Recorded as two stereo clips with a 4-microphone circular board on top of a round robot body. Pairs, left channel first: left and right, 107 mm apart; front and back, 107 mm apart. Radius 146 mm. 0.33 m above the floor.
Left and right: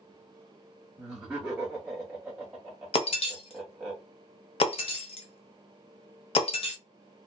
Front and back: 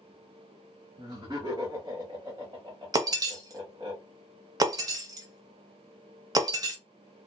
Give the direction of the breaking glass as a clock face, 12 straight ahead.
8 o'clock.